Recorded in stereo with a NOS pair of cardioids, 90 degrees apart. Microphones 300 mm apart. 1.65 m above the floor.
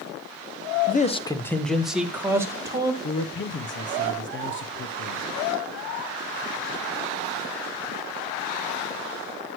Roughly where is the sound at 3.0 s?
Ahead left.